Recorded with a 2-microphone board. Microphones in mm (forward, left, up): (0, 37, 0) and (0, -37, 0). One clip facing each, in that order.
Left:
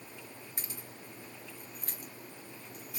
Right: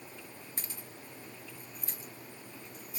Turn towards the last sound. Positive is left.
turn(degrees=80)